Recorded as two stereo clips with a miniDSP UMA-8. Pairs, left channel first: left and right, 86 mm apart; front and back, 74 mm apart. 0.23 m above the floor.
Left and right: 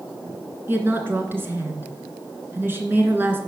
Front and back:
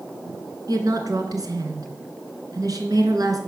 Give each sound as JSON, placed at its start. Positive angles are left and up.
{"t": 0.7, "sound": "a woman speaking", "azimuth_deg": -150, "distance_m": 2.5}